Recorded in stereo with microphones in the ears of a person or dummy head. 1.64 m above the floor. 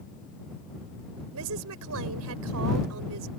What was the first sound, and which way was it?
A woman speaking, 75° right (ahead or behind).